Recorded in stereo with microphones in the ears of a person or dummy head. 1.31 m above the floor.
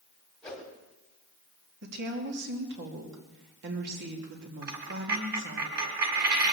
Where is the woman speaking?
65° right (ahead or behind), 2.5 m.